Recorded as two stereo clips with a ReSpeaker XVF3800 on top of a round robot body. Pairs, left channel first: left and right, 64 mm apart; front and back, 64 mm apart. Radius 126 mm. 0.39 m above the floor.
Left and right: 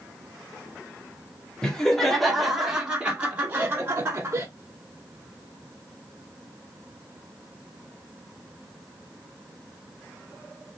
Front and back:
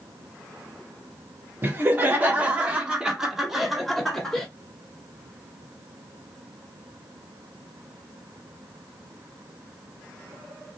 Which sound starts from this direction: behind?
Laughter, at 1.6 s.